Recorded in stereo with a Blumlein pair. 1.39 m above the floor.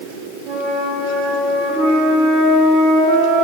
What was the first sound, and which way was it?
A flute, 25° right.